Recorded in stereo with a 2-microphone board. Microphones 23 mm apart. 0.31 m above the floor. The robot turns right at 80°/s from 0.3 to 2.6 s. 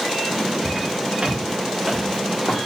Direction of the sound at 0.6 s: 40° right (ahead or behind).